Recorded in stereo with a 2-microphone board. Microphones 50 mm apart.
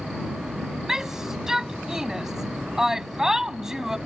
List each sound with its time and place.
0.9 s a shout: 10° right (ahead or behind)